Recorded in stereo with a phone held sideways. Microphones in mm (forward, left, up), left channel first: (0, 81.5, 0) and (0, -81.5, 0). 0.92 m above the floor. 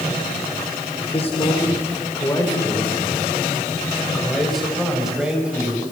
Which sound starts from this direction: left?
A man speaking, at 1.0 s.